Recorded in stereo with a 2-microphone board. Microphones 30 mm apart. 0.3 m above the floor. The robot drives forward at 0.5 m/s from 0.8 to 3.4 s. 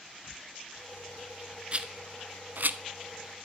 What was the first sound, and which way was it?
A rattle, 35° right (ahead or behind).